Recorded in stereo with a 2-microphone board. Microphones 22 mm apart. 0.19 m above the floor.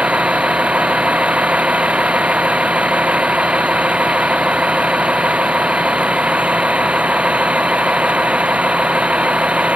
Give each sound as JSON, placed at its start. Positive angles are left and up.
{"t": 0.0, "sound": "a vehicle", "side_deg": -80}